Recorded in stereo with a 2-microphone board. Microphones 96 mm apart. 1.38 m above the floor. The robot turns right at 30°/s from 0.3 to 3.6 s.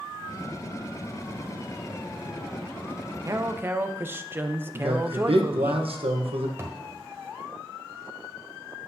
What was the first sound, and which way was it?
A man speaking, 35° right (ahead or behind).